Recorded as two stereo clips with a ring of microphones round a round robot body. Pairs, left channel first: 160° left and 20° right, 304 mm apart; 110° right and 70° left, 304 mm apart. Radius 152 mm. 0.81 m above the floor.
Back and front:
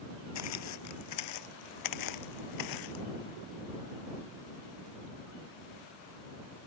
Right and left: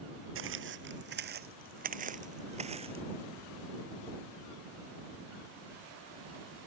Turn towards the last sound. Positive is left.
turn(degrees=140)